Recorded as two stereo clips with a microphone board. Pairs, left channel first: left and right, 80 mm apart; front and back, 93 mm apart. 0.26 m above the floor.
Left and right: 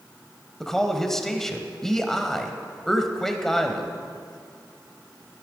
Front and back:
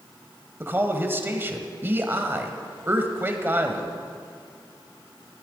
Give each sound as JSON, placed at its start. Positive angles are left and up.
{"t": 0.6, "sound": "a man speaking", "azimuth_deg": 170, "distance_m": 1.0}